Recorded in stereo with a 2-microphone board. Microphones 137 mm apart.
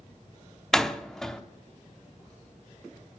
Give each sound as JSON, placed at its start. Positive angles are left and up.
{"t": 0.7, "sound": "a door slam", "side_deg": 5, "distance_m": 0.7}